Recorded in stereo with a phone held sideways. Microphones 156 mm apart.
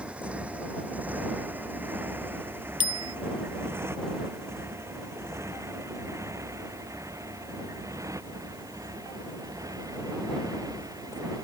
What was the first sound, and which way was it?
A motorcycle, 5° right (ahead or behind).